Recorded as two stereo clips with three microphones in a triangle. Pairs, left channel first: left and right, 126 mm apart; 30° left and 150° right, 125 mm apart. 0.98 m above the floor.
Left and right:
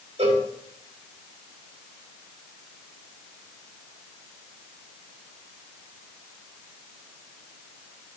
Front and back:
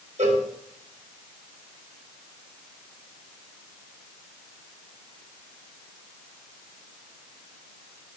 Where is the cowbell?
130° right, 2.5 m.